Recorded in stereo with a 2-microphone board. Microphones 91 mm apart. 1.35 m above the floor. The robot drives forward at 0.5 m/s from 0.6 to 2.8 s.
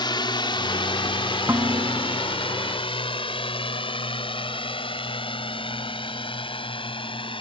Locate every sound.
0.0 s a drone: 60° left (ahead or behind); by 7.4 s 75° left (ahead or behind)
1.5 s dishes clattering: 25° right (ahead or behind)